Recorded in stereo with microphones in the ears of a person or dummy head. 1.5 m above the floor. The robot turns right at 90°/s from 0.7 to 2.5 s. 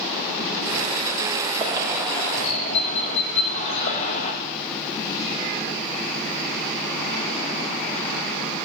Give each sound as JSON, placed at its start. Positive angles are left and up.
{"t": 1.6, "sound": "a bird", "azimuth_deg": -45, "distance_m": 1.9}